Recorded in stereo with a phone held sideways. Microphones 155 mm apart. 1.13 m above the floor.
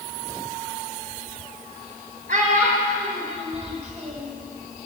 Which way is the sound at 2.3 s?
60° right (ahead or behind).